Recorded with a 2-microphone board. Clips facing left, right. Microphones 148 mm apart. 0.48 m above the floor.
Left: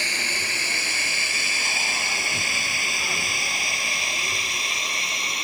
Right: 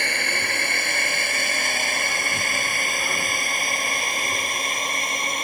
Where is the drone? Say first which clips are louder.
Right 4 dB; 60° right (ahead or behind); by 5.5 s 55° right (ahead or behind).